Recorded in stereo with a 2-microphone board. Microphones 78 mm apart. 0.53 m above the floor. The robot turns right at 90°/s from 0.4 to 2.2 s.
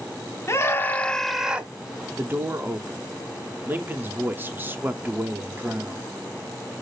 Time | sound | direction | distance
0.5 | a scream | 100° left | 1.1 m
2.2 | a man speaking | 25° right (ahead or behind) | 0.7 m